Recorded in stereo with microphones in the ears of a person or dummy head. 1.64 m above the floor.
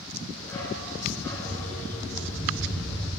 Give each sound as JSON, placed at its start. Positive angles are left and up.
{"t": 0.4, "sound": "a dog barking", "side_deg": 10, "distance_m": 6.0}